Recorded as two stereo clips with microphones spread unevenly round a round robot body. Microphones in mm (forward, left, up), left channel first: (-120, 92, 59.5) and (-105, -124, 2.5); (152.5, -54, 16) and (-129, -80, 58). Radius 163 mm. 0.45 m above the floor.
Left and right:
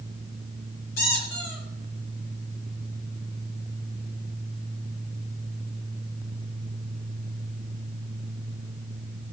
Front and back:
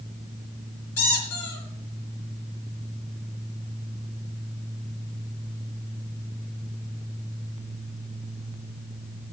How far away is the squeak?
About 4.5 m.